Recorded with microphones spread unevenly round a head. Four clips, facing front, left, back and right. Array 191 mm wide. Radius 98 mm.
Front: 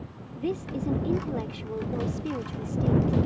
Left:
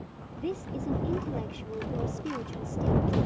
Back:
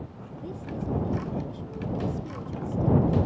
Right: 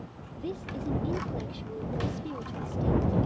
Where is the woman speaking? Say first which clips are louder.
Left 2 dB, front 6 dB; 15° left.